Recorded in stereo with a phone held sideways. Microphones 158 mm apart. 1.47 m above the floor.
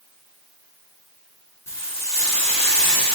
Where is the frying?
20° left (ahead or behind), 1.4 m.